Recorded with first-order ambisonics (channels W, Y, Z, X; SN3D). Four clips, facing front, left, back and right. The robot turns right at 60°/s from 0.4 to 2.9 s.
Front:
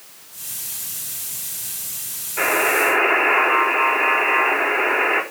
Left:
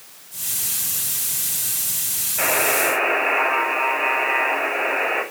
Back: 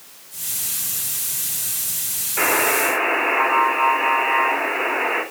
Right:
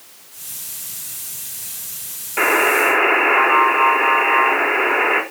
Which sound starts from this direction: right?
A buzzer, at 2.4 s.